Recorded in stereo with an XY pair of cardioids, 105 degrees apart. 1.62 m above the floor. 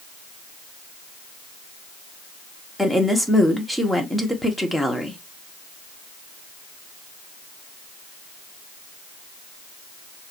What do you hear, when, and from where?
2.8 s a woman speaking: 5° left, 1.5 m